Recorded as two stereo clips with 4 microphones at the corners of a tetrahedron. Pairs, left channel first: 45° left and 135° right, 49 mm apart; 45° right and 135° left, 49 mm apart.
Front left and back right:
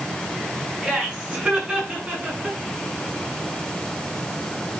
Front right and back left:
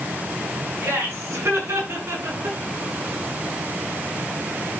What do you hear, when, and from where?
0.8 s laughter: 160° left, 7.5 m; by 2.6 s 165° left, 7 m